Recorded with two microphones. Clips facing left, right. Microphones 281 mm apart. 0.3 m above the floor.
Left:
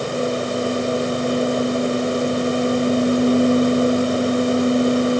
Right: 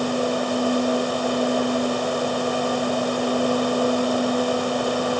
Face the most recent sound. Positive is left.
No sound to turn to.